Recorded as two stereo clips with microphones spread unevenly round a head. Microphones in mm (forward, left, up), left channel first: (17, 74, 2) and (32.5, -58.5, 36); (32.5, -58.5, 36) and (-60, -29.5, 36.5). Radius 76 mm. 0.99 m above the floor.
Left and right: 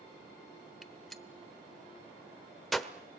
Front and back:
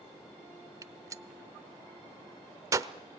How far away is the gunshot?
About 0.8 m.